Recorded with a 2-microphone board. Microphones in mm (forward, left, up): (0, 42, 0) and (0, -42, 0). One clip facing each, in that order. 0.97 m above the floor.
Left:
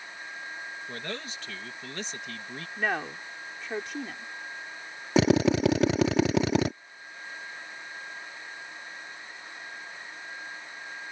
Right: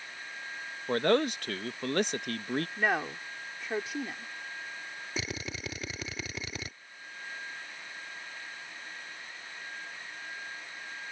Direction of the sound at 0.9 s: 50° right (ahead or behind).